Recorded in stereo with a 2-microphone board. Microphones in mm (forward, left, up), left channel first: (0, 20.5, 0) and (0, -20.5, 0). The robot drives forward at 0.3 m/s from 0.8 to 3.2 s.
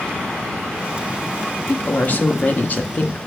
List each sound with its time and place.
1.7 s a woman speaking: 40° left (ahead or behind), 0.6 m; by 3.2 s 35° left (ahead or behind), 0.6 m